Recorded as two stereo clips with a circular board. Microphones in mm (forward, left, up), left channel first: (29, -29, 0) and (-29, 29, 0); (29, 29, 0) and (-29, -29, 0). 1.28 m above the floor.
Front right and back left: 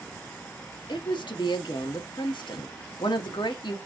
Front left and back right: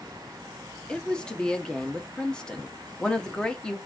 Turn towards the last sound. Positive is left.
turn(degrees=-35)